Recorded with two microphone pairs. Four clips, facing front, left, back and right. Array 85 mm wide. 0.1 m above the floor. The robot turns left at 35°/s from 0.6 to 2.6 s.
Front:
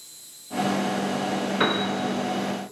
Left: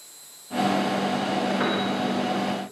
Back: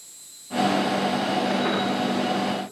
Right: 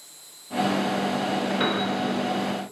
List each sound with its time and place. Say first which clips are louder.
0.0 s an insect: even, front 1 dB; 35° right, 6 m; by 2.7 s 105° right, 6 m
1.6 s a piano: even, even; 15° left, 8.5 m; by 1.9 s 5° left, 8.5 m